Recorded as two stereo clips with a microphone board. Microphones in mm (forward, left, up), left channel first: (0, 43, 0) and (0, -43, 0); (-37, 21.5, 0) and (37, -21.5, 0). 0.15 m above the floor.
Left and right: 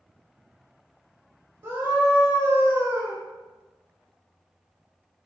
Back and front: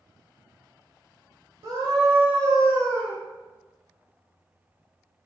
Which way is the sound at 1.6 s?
40° right.